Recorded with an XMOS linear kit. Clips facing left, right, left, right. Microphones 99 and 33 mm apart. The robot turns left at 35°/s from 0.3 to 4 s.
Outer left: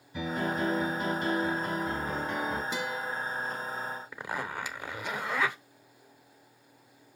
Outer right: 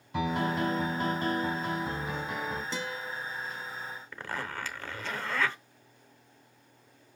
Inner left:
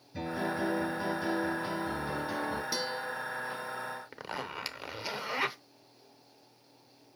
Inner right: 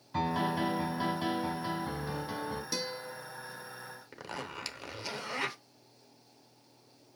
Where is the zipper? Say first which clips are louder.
Outer right 1 dB, inner left 2 dB; 15° left (ahead or behind), 0.8 m.